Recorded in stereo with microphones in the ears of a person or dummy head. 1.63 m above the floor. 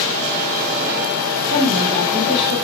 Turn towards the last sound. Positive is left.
turn(degrees=-40)  # may be behind; listen again after turning